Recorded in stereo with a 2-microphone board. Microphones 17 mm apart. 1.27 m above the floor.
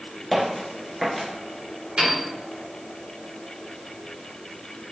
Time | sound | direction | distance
0.3 | footsteps | centre (ahead or behind) | 1.3 m
2.0 | a piano | 65° right (ahead or behind) | 1.3 m